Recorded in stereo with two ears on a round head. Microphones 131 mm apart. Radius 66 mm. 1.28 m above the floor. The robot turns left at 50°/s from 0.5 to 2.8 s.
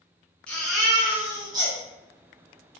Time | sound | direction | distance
0.5 | a baby crying | 15° left | 0.9 m